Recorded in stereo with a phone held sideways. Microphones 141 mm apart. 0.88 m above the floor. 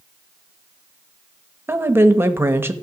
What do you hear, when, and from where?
1.7 s a woman speaking: 15° right (ahead or behind), 0.9 m